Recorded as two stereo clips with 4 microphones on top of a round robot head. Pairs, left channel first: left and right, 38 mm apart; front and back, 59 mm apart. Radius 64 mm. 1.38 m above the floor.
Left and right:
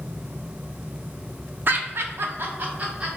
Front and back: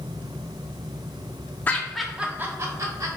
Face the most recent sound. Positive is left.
turn(degrees=-150)